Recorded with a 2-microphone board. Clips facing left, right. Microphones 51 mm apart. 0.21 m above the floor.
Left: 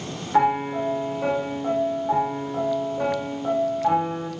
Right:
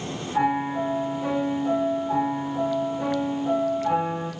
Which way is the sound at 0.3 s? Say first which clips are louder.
Left 3 dB; 45° left (ahead or behind).